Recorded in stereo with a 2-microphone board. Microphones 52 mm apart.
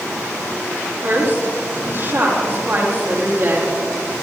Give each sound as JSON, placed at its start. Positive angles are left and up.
{"t": 1.0, "sound": "a woman speaking", "side_deg": -50, "distance_m": 5.5}